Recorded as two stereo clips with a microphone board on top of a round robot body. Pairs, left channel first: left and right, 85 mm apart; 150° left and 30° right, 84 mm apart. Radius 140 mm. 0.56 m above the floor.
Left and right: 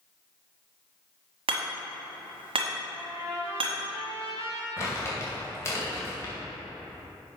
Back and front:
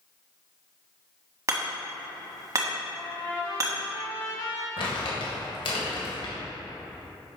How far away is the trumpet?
About 2.5 m.